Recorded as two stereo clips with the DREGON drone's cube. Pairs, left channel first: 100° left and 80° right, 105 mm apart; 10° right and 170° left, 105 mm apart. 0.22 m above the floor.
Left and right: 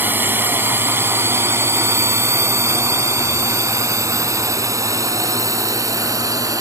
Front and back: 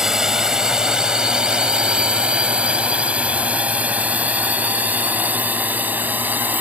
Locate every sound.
0.0 s a drone: 110° right; by 6.6 s 125° right